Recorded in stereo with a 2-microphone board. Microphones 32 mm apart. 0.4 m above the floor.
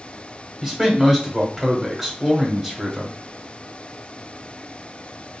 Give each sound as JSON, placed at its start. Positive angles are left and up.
{"t": 0.6, "sound": "a man speaking", "side_deg": -15, "distance_m": 1.2}